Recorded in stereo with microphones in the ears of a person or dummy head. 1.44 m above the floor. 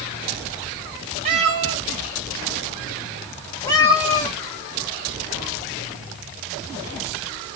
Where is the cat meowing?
35° right (ahead or behind), 0.7 m; by 4.4 s 25° left (ahead or behind), 1.6 m.